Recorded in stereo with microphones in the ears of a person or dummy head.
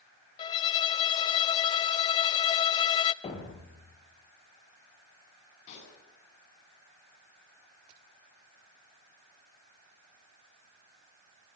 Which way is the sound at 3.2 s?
25° left (ahead or behind).